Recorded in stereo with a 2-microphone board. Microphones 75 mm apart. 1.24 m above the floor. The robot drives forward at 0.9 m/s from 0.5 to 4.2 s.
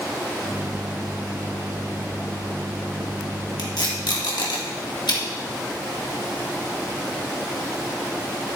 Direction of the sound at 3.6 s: 70° left (ahead or behind).